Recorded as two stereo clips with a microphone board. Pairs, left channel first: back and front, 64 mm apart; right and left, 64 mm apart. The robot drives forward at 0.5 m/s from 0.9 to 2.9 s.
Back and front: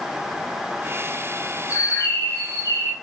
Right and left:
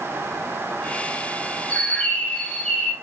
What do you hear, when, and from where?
1.7 s a bird: 150° right, 0.7 m; by 2.9 s 165° right, 1.2 m